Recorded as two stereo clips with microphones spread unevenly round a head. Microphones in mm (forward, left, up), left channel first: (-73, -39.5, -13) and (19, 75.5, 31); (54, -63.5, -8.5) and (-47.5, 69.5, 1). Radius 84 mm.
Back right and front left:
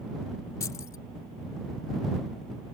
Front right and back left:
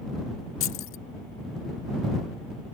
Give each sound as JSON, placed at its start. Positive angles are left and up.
{"t": 0.6, "sound": "keys jangling", "azimuth_deg": -55}